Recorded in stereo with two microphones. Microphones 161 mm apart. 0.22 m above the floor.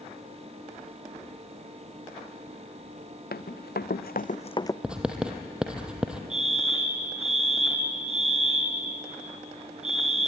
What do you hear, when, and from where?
3.3 s running footsteps: 75° left (ahead or behind), 1.6 m; by 4.7 s 15° left (ahead or behind), 0.9 m
4.8 s writing: 5° right (ahead or behind), 2.5 m
6.3 s a fire alarm: 45° right (ahead or behind), 4 m